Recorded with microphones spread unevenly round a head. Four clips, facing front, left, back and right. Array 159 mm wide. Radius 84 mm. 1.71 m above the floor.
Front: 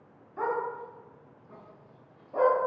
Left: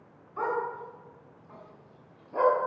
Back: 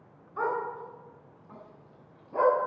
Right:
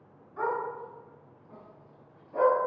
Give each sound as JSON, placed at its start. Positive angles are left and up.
{"t": 0.4, "sound": "a dog barking", "azimuth_deg": 165, "distance_m": 8.0}